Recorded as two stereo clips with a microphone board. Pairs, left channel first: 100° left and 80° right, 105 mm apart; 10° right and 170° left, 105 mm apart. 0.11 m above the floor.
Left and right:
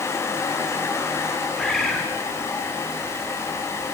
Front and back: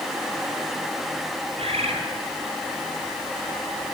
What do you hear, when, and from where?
1.6 s a bird: 175° right, 3.5 m